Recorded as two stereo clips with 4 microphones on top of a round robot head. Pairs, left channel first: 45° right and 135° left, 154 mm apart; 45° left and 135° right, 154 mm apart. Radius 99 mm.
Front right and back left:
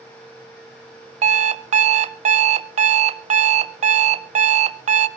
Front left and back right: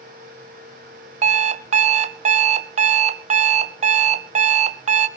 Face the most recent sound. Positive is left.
turn(degrees=180)